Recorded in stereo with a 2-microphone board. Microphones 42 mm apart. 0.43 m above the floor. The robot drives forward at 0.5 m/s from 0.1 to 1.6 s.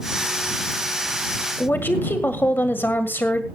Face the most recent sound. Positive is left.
turn(degrees=60)  # may be behind; listen again after turning